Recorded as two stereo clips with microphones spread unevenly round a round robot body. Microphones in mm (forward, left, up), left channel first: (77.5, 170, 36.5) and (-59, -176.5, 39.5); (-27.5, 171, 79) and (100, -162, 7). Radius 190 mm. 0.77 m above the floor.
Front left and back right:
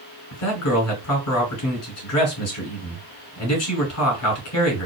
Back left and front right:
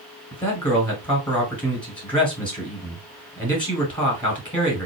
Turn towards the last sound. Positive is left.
turn(degrees=30)